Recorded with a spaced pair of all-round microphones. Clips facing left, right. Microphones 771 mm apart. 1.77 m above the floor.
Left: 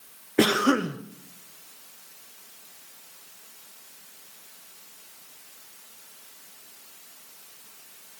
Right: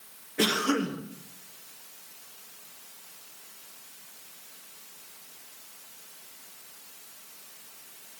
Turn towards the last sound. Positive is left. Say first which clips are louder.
# left 5 dB
turn(degrees=75)  # may be behind; listen again after turning